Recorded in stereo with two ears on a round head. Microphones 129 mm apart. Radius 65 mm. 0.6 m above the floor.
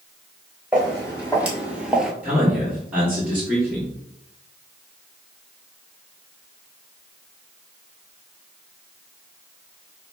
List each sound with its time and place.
0.7 s footsteps: 10° right (ahead or behind), 2 m; by 2.1 s 5° right (ahead or behind), 0.5 m
2.2 s a man speaking: 10° right (ahead or behind), 1.5 m